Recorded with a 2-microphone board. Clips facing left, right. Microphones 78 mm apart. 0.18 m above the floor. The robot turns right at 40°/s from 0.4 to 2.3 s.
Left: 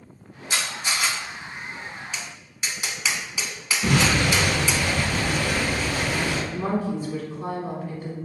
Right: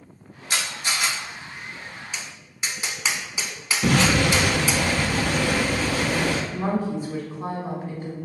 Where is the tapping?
25° right (ahead or behind), 0.6 m; by 4.8 s 30° right (ahead or behind), 0.6 m.